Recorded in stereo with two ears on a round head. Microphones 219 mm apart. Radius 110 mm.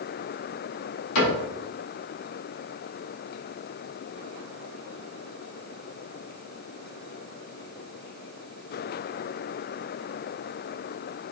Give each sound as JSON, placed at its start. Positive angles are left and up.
{"t": 1.1, "sound": "a cupboard door", "side_deg": 80, "distance_m": 3.5}